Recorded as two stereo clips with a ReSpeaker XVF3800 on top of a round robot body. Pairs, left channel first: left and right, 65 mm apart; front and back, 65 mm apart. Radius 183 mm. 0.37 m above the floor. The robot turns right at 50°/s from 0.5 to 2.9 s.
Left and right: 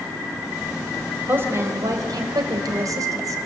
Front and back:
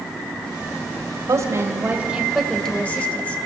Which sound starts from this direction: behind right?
A woman speaking, at 1.3 s.